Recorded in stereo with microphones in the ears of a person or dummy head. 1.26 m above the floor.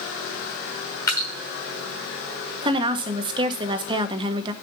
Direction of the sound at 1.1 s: 15° left (ahead or behind).